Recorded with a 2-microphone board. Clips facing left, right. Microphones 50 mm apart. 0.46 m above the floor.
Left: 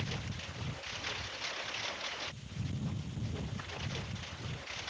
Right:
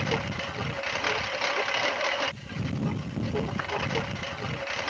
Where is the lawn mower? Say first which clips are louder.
Right 13 dB; 90° right; by 4.9 s 85° right.